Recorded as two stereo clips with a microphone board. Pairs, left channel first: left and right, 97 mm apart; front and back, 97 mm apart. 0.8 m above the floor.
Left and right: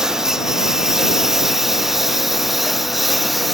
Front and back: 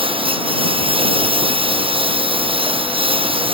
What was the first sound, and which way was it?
A lawn mower, 175° right.